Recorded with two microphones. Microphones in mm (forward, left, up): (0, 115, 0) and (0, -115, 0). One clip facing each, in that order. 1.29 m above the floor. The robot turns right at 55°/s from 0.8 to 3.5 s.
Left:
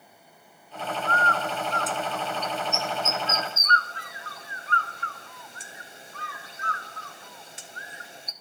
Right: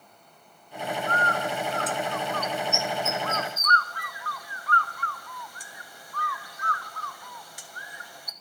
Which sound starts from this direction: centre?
A bird, at 1.1 s.